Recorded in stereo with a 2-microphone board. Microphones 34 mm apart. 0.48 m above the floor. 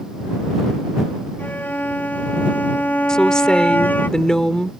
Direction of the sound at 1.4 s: 75° left (ahead or behind).